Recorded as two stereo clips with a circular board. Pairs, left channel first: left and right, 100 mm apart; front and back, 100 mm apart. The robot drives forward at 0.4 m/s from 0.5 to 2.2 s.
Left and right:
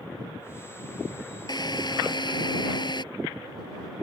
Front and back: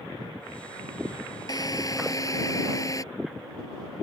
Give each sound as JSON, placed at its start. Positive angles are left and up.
{"t": 1.5, "sound": "a drill", "azimuth_deg": 50}